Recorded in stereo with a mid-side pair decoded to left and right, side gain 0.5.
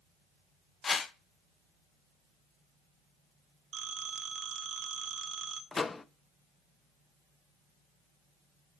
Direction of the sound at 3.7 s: 50° right.